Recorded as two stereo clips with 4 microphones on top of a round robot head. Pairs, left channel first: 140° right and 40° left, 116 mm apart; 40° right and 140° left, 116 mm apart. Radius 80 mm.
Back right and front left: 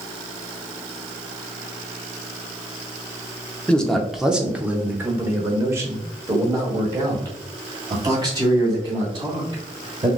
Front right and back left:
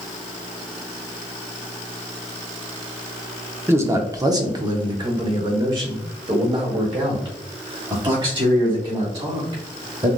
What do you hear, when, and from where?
3.7 s a man speaking: 160° left, 0.8 m; by 10.1 s 95° left, 4 m